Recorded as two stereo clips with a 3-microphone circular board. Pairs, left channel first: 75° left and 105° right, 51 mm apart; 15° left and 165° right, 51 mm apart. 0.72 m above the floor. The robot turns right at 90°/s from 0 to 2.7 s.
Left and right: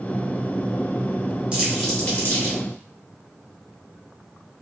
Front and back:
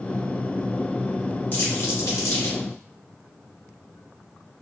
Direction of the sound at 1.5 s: 40° right.